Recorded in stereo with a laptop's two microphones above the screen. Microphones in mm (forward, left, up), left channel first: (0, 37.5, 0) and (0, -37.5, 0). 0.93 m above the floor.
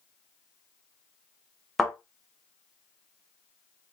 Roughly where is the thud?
Centre.